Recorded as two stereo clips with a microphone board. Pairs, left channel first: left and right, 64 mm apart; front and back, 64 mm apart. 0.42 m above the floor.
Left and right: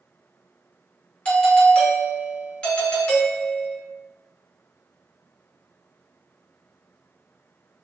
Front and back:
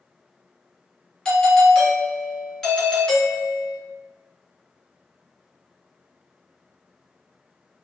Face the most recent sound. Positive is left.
turn(degrees=55)